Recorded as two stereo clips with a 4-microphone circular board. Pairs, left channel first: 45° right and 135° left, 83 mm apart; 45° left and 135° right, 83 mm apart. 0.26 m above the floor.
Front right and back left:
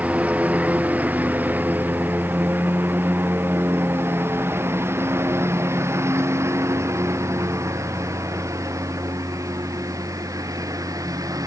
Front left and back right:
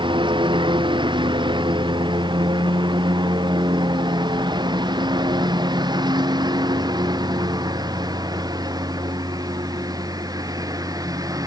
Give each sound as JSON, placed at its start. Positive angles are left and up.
{"t": 0.0, "sound": "a lawn mower", "azimuth_deg": -150}